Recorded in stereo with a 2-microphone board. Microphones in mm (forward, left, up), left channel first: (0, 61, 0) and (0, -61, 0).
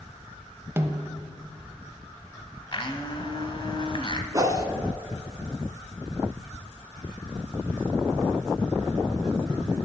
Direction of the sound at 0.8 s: 20° right (ahead or behind).